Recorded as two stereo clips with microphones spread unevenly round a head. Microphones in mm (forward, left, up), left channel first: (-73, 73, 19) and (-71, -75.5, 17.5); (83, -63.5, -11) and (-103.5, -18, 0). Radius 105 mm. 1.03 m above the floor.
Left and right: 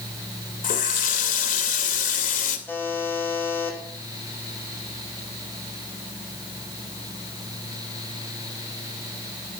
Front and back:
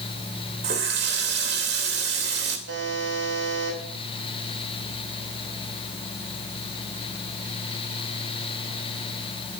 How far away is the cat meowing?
I don't hear a cat meowing.